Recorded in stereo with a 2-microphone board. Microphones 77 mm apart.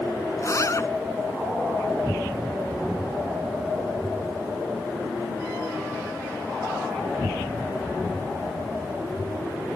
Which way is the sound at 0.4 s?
40° left (ahead or behind).